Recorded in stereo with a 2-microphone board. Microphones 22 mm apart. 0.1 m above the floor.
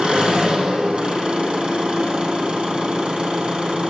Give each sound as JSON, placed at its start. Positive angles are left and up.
{"t": 0.0, "sound": "an engine running", "side_deg": -40, "distance_m": 3.0}